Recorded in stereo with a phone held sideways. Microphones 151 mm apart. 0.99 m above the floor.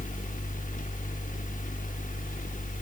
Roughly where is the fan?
Left.